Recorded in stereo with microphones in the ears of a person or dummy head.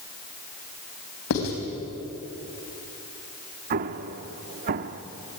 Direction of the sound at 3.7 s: 35° right (ahead or behind).